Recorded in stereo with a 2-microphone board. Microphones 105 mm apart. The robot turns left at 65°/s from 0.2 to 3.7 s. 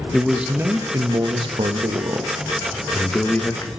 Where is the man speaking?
Straight ahead, 1.0 m; by 3.7 s 135° left, 1.0 m.